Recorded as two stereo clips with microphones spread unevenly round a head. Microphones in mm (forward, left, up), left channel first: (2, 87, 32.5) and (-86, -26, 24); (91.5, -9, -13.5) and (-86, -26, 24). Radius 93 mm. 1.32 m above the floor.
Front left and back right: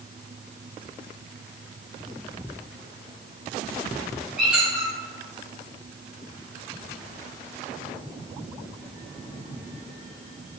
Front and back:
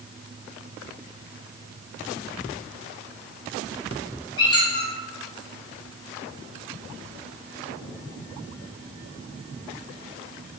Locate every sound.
4.4 s a squeak: 45° right, 0.7 m